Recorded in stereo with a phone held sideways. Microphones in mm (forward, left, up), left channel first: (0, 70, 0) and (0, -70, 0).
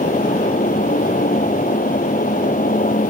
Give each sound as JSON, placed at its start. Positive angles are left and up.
{"t": 0.0, "sound": "a fan", "side_deg": 75}